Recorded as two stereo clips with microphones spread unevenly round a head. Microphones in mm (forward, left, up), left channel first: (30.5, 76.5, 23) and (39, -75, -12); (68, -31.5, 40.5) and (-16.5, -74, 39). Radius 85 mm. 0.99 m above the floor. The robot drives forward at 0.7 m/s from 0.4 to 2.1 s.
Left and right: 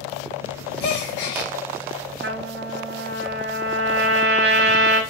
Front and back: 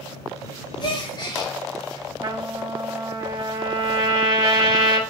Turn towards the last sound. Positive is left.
turn(degrees=-115)